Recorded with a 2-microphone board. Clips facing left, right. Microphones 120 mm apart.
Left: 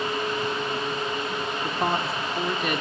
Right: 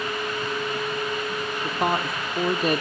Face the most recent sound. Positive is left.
turn(degrees=-35)  # may be behind; listen again after turning